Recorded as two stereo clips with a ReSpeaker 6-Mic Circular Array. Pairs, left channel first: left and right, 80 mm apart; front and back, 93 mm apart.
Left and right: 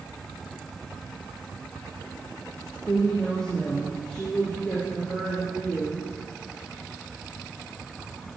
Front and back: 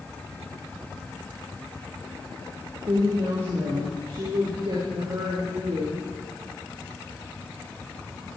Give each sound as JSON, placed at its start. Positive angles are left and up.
{"t": 2.9, "sound": "a woman speaking", "azimuth_deg": 160, "distance_m": 3.5}